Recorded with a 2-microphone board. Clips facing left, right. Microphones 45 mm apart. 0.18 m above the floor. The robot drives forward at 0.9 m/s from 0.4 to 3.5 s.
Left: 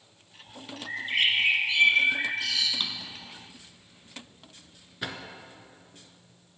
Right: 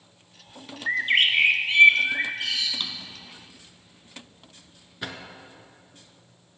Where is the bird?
55° right (ahead or behind), 1.0 m; by 2.7 s 25° right (ahead or behind), 2 m.